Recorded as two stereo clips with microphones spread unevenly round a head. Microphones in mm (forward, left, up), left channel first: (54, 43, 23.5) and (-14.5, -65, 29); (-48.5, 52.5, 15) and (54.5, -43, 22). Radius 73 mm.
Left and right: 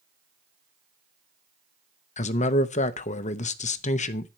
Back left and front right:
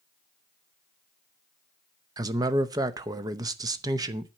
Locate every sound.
2.2 s a man speaking: 25° left, 0.8 m